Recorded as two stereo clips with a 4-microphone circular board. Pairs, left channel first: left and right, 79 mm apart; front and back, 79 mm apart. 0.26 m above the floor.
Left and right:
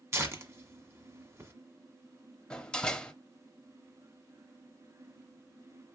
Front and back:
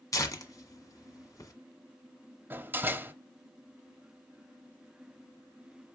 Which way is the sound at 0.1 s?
40° right.